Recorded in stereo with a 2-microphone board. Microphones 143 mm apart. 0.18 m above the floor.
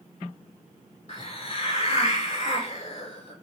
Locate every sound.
1.1 s a hiss: 50° left (ahead or behind), 0.5 m